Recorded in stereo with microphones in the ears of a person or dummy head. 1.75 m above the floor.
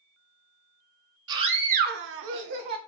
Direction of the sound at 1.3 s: 25° right (ahead or behind).